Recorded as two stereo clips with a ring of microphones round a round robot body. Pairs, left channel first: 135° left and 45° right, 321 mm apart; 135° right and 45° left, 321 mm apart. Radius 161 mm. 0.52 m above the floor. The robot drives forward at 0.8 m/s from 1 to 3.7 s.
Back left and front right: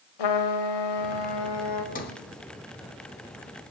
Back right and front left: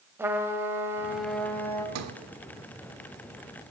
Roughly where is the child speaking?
No child speaking in this recording.